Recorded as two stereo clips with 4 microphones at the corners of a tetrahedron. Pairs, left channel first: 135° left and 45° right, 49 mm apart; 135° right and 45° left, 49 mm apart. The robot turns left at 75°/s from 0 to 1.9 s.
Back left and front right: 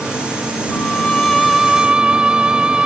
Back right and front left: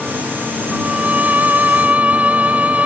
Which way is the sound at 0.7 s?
105° left.